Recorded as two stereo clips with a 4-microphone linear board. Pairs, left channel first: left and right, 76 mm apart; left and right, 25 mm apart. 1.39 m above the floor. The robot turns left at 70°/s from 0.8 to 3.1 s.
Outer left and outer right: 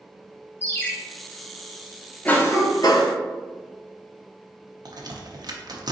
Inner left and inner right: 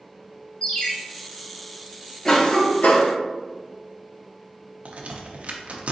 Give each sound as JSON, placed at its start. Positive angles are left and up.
{"t": 0.6, "sound": "a ringtone", "side_deg": 20, "distance_m": 0.9}
{"t": 2.2, "sound": "a cough", "azimuth_deg": 165, "distance_m": 0.9}
{"t": 4.8, "sound": "a crack", "side_deg": -60, "distance_m": 0.6}